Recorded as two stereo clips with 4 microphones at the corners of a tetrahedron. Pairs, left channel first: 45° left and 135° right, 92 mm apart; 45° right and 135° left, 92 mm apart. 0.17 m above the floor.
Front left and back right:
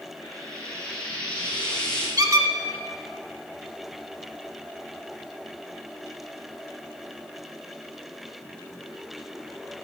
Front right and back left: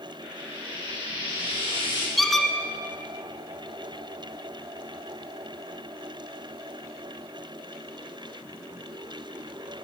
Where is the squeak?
135° right, 0.9 m.